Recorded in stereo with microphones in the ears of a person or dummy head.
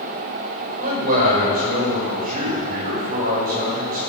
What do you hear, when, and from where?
0.8 s a man speaking: 45° right (ahead or behind), 6.5 m